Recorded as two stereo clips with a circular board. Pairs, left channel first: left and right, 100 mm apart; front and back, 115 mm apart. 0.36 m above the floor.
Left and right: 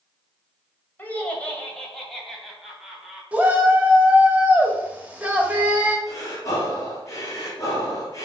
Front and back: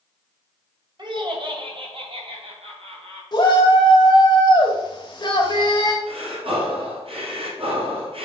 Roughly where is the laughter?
Behind left.